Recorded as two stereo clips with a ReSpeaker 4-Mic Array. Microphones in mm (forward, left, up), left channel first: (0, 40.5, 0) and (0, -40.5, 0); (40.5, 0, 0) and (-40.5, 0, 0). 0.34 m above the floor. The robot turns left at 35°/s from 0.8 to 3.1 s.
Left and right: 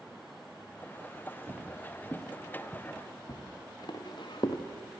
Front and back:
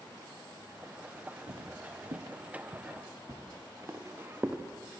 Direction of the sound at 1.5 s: 155° right.